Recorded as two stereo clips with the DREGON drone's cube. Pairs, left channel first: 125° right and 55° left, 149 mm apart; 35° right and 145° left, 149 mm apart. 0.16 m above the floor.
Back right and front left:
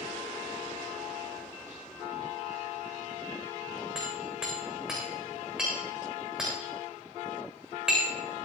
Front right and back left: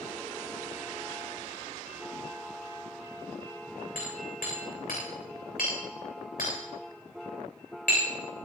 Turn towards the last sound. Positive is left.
turn(degrees=-30)